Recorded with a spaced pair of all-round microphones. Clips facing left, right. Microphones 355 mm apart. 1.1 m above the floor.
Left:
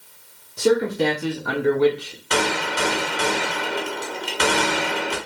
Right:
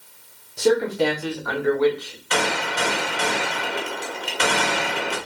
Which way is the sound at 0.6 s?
10° left (ahead or behind).